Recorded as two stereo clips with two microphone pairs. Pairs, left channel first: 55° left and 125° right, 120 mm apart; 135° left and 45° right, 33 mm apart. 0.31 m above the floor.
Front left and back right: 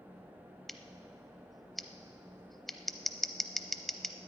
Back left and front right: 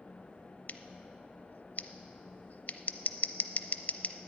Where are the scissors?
140° left, 0.6 m.